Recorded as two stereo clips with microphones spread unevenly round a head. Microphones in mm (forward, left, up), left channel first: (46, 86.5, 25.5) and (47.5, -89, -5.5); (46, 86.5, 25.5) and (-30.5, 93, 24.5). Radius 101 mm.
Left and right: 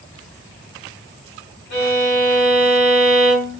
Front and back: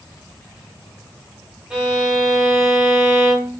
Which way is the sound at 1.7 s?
95° left.